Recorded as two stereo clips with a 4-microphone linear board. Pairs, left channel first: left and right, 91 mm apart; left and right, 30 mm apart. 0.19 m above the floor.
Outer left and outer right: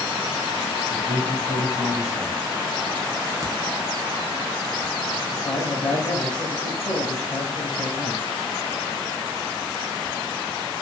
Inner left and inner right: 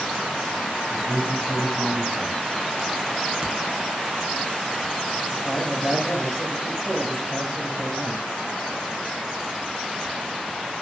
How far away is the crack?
About 0.6 m.